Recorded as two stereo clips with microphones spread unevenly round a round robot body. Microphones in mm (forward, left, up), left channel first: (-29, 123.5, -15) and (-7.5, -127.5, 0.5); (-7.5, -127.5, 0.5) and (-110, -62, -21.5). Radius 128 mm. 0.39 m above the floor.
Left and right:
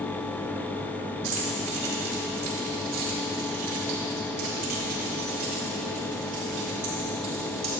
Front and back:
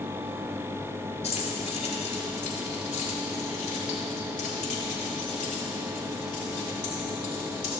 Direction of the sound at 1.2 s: 60° right.